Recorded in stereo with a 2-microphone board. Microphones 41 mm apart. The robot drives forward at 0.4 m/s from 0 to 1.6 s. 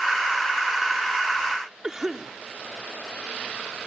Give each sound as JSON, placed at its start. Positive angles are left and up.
{"t": 1.8, "sound": "a cough", "side_deg": -15}